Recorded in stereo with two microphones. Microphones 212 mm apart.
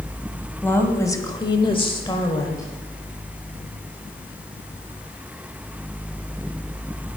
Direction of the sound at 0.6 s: 10° left (ahead or behind).